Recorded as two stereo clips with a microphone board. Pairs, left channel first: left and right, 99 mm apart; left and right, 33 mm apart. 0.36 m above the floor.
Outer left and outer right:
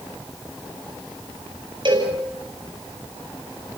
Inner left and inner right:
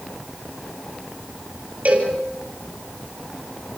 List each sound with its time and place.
1.9 s a cowbell: 50° right (ahead or behind), 7.5 m